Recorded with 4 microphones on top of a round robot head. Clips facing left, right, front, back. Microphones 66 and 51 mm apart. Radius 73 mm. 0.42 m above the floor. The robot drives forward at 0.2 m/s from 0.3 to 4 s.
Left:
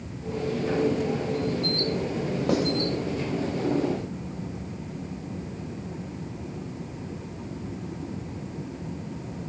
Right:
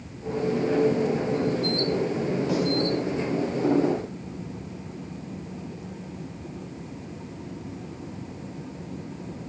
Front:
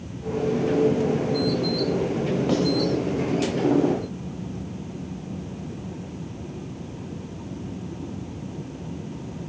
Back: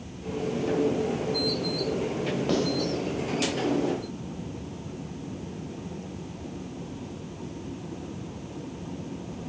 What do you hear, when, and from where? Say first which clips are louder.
2.5 s writing: left 4 dB, front 2 dB; 85° left, 2.5 m